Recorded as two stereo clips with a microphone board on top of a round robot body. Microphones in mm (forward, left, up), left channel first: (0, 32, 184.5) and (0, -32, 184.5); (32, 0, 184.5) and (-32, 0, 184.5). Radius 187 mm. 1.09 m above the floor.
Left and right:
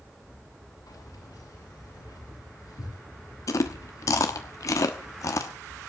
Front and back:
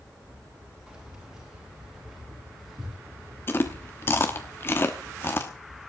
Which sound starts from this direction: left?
Keys jangling, at 0.9 s.